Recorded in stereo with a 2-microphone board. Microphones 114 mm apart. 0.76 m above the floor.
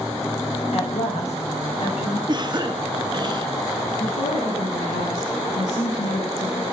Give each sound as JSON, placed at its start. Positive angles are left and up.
{"t": 0.7, "sound": "a woman speaking", "side_deg": 65, "distance_m": 4.5}
{"t": 2.3, "sound": "a cough", "side_deg": -40, "distance_m": 1.3}
{"t": 4.0, "sound": "a woman speaking", "side_deg": 85, "distance_m": 7.0}